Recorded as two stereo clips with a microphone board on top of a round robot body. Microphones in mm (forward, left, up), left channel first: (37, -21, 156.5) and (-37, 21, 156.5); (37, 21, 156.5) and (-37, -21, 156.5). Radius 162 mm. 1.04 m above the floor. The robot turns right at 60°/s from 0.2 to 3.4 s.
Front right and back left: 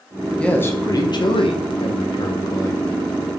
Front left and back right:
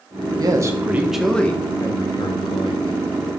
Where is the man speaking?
110° right, 1.2 m; by 3.1 s 50° left, 1.2 m.